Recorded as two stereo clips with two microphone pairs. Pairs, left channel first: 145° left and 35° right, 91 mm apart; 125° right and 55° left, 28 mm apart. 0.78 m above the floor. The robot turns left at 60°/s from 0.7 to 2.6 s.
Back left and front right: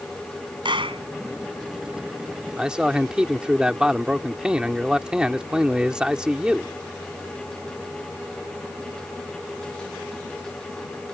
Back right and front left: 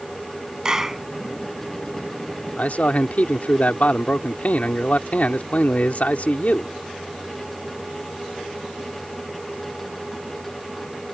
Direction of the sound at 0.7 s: 10° right.